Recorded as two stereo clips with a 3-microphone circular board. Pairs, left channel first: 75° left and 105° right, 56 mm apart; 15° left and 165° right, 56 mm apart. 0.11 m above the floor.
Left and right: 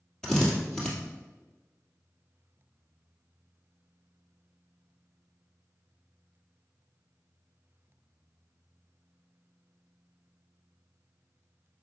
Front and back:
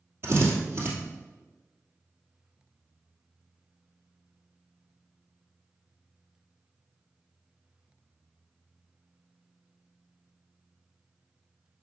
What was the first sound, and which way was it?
A drill, 155° left.